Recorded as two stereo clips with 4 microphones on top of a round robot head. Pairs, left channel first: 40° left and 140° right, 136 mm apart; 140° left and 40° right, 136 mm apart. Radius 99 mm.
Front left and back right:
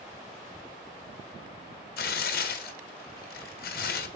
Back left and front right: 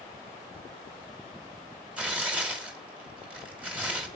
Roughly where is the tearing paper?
Ahead left.